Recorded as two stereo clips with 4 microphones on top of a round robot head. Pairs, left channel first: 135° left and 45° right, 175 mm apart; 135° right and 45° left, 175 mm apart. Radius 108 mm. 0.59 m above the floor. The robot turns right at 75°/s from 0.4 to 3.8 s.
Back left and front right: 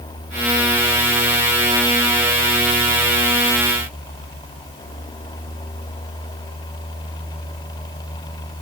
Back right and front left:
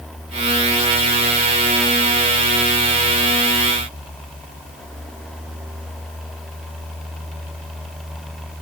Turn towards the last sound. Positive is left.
No sound to turn to.